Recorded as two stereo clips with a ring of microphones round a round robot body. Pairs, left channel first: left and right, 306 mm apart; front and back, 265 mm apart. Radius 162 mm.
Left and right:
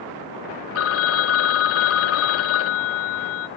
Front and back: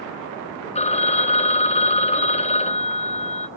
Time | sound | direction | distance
0.8 | a phone ringing | 60° left | 0.7 m